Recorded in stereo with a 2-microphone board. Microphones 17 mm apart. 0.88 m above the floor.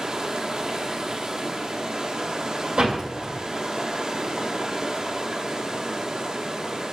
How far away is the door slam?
About 2.5 m.